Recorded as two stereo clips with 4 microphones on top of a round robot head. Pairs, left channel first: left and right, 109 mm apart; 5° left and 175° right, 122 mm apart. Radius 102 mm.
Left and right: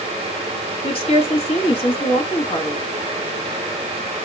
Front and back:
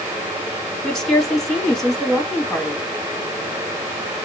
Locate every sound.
0.8 s a woman speaking: 90° left, 1.6 m